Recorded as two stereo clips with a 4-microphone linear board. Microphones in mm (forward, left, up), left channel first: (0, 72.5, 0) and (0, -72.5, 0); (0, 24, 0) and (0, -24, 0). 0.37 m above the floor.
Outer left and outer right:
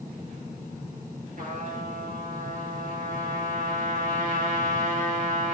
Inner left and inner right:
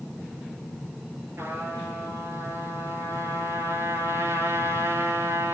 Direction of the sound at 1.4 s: 65° right (ahead or behind).